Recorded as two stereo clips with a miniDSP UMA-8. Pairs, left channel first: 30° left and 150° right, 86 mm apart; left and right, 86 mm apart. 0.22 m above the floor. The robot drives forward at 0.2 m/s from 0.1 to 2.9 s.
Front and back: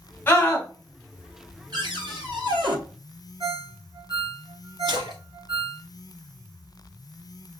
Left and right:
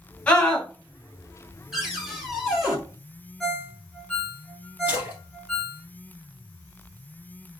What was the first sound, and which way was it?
A scream, 35° left.